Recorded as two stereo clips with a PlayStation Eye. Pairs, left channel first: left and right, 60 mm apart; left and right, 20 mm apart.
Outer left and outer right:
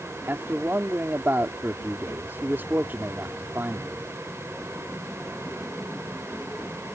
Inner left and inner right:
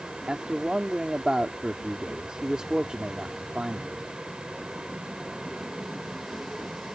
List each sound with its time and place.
0.3 s a man speaking: 35° right (ahead or behind)